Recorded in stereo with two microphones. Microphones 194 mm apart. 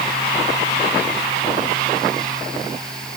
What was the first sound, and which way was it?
Only background noise.